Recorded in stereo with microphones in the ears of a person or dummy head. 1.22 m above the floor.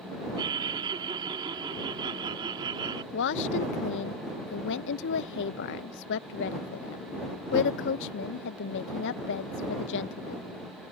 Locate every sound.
0.4 s laughter: 30° right (ahead or behind)
3.1 s a woman speaking: 60° left (ahead or behind)